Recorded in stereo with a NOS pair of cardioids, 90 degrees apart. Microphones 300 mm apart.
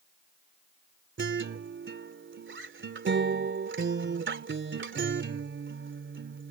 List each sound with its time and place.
1.2 s a guitar: 40° right